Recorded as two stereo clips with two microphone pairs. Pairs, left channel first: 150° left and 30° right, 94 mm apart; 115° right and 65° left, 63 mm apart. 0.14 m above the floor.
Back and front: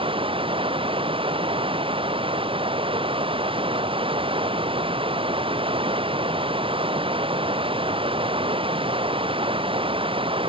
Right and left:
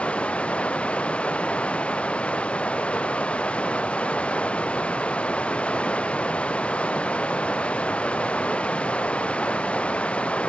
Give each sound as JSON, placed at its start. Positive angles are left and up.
{"t": 0.0, "sound": "running water", "azimuth_deg": -45}